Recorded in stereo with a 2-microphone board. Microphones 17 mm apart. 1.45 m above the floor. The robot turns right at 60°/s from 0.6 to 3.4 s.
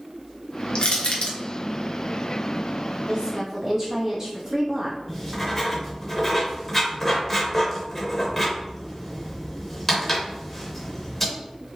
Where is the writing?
15° left (ahead or behind), 1.4 m.